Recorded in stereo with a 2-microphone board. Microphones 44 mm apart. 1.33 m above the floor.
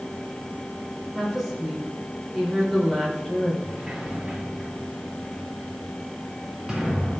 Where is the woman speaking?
Centre (ahead or behind), 3 m.